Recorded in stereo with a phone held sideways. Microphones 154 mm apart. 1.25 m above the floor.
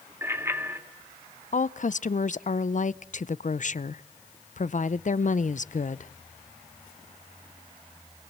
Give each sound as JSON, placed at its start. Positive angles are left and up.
{"t": 0.2, "sound": "a bicycle bell", "side_deg": -15, "distance_m": 2.5}
{"t": 1.5, "sound": "a woman speaking", "side_deg": 55, "distance_m": 0.6}